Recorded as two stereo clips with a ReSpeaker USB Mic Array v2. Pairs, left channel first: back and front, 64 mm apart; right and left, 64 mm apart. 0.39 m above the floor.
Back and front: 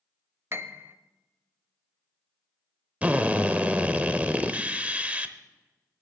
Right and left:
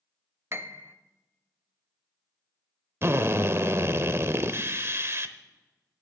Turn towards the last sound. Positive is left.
turn(degrees=60)